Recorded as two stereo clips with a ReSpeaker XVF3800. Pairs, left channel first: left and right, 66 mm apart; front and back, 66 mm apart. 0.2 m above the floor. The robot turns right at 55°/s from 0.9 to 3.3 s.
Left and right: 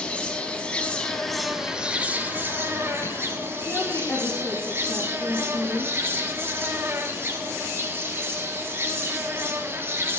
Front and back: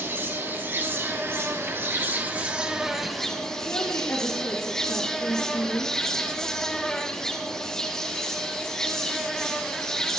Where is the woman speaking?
50° left, 5.5 m.